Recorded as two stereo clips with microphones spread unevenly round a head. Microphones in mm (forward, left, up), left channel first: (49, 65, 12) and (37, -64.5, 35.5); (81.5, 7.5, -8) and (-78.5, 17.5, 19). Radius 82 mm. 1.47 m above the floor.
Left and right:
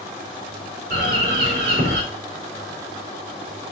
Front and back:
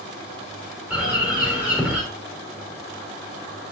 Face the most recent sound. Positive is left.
turn(degrees=-100)